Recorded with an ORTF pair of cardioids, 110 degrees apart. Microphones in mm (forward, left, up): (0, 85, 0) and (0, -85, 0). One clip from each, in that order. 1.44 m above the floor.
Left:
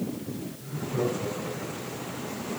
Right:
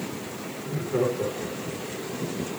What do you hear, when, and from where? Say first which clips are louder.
0.6 s laughter: right 4 dB; 65° right, 4.5 m